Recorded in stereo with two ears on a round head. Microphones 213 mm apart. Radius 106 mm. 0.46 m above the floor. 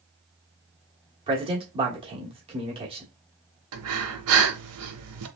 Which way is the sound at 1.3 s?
25° right (ahead or behind).